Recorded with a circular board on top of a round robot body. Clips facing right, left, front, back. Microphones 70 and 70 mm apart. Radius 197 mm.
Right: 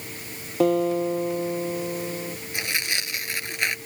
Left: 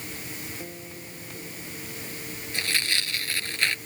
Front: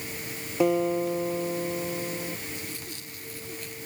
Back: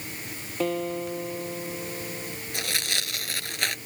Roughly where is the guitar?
Right.